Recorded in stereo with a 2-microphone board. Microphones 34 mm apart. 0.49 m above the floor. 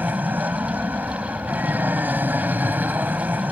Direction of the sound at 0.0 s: 60° right (ahead or behind).